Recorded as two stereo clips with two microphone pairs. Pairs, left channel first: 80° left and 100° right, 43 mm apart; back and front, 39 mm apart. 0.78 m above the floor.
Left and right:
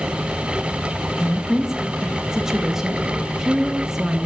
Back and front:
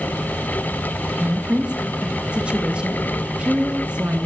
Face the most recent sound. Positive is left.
turn(degrees=-30)